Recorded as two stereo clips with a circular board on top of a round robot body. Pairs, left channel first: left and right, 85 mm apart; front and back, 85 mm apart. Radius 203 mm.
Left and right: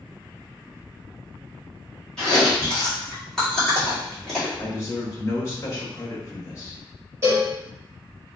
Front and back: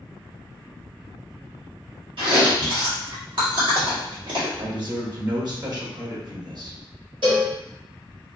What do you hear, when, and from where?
2.2 s chewing: 175° left, 1.9 m
4.6 s a man speaking: 145° left, 1.3 m
7.2 s a cowbell: 150° right, 0.9 m